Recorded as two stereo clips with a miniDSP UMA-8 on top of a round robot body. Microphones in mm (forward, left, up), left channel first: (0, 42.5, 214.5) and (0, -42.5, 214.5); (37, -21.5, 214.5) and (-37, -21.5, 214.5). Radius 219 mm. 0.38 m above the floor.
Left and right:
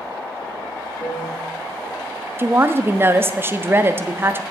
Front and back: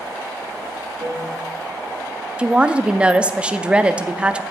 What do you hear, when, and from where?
1.0 s a piano: 130° left, 5.5 m
2.4 s a woman speaking: 120° right, 0.8 m